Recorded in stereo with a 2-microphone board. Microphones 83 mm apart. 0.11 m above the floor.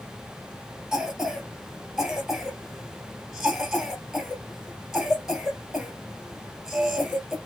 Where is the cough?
5° right (ahead or behind), 2 m.